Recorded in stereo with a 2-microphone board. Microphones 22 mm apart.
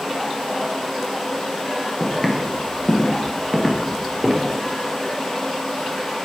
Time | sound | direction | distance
2.0 | footsteps | 20° left (ahead or behind) | 1.7 m